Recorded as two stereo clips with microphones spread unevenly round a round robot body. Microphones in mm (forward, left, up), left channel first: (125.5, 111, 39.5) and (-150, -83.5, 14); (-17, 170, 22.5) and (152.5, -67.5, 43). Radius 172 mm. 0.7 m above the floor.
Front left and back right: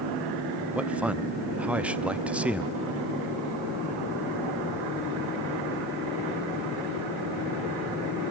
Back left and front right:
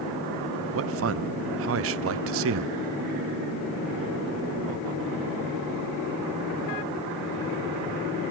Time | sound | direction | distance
0.8 | a man speaking | 65° right | 0.6 m